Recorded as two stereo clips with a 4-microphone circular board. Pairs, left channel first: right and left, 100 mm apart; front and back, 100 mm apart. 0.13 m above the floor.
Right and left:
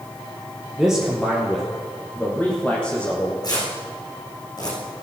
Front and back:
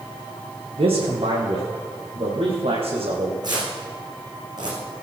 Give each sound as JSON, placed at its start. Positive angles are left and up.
{"t": 0.8, "sound": "a man speaking", "azimuth_deg": 170, "distance_m": 2.5}
{"t": 3.4, "sound": "tearing paper", "azimuth_deg": -135, "distance_m": 6.5}